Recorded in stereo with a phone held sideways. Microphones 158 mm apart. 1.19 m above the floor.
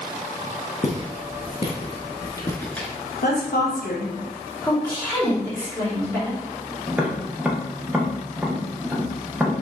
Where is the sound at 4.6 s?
5° left (ahead or behind), 2.5 m.